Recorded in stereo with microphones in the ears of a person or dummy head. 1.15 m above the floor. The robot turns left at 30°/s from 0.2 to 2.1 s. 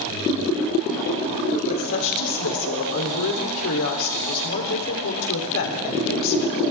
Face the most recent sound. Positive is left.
turn(degrees=70)  # may be behind; listen again after turning